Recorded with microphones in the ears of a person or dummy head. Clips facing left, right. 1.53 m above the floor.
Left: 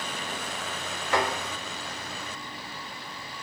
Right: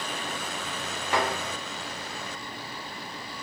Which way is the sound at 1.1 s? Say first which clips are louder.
Left 1 dB; 15° right (ahead or behind).